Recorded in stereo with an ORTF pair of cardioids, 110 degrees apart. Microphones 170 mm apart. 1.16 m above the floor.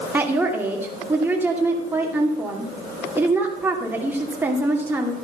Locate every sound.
0.1 s a woman speaking: 10° right, 2.5 m